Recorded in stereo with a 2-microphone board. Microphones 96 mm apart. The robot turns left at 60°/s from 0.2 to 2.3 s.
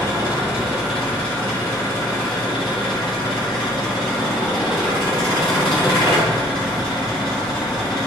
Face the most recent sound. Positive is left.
turn(degrees=95)